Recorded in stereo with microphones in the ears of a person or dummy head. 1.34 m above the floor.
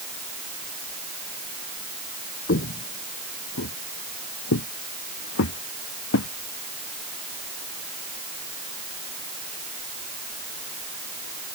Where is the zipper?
I don't hear a zipper.